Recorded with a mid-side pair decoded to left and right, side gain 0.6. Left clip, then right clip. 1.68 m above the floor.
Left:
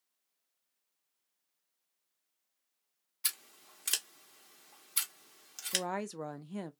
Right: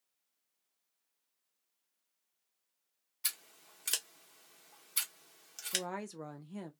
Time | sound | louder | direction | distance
3.2 | scissors | left 2 dB | 10° left | 1.0 m
5.7 | a woman speaking | left 3 dB | 25° left | 0.6 m